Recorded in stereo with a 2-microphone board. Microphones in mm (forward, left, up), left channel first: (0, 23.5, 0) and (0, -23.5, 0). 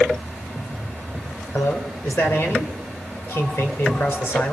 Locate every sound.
1.5 s a man speaking: 55° left (ahead or behind), 3.5 m